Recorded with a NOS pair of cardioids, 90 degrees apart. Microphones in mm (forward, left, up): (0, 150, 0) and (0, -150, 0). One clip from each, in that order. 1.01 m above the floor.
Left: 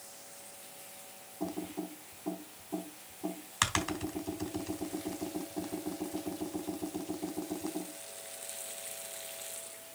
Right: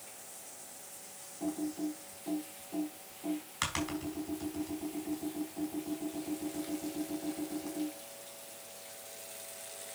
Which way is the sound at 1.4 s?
45° left.